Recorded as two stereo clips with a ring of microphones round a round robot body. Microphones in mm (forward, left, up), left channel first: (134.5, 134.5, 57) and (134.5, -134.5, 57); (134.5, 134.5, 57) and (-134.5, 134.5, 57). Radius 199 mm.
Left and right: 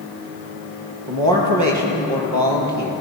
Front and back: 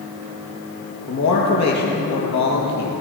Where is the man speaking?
75° right, 7 m.